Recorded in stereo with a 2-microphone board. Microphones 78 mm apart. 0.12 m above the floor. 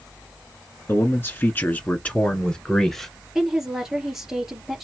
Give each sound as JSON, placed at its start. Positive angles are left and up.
{"t": 0.9, "sound": "a man speaking", "side_deg": 35, "distance_m": 1.7}
{"t": 3.4, "sound": "a woman speaking", "side_deg": -5, "distance_m": 2.5}